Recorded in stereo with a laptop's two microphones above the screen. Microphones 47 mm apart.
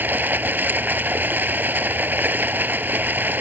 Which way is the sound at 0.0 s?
45° right (ahead or behind).